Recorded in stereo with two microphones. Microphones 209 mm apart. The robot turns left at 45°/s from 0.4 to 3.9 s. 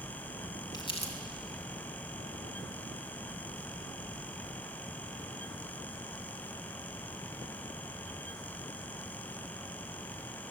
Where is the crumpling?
20° left (ahead or behind), 3 m; by 1.1 s 35° left (ahead or behind), 3 m.